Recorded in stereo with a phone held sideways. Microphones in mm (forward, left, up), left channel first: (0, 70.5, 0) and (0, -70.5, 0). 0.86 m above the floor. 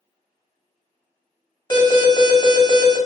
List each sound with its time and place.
1.7 s an alarm: 30° left (ahead or behind), 1.2 m